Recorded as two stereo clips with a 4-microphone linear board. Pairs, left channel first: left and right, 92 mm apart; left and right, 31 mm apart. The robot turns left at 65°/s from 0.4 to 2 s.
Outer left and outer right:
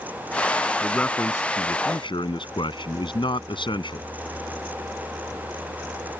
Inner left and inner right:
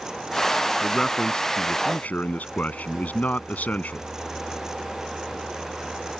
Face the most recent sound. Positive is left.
turn(degrees=100)